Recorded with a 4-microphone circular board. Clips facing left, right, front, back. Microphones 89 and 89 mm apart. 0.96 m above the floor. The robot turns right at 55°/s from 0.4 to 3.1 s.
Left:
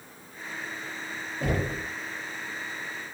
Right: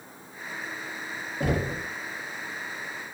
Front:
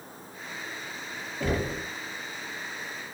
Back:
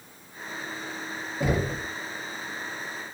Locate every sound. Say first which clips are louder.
1.4 s knocking: right 2 dB, back 2 dB; 105° right, 0.7 m; by 1.9 s 80° right, 0.7 m